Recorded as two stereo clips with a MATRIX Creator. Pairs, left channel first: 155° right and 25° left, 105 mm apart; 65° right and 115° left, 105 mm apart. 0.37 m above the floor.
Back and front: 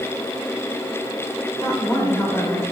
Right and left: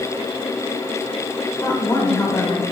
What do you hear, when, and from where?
1.6 s a woman speaking: 115° right, 1.1 m